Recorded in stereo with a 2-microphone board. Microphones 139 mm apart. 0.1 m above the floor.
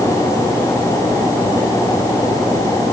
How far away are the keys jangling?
I don't hear keys jangling.